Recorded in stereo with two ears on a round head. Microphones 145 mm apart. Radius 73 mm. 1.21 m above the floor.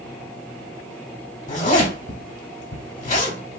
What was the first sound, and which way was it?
A zipper, 40° left (ahead or behind).